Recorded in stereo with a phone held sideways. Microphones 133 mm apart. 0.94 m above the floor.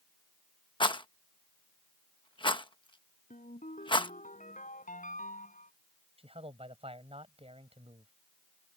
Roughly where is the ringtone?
Left.